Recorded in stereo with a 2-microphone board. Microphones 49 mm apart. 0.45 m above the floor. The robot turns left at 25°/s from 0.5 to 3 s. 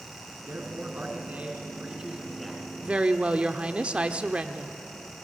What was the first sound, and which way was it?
A man speaking, 130° right.